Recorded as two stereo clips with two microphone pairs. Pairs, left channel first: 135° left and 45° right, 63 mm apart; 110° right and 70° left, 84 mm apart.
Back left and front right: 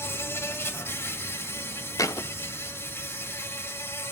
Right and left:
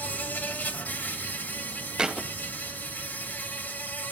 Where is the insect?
175° right, 1.7 m.